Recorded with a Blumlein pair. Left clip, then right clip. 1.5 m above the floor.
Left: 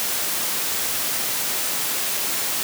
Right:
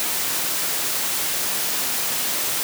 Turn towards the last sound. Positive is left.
No sound to turn to.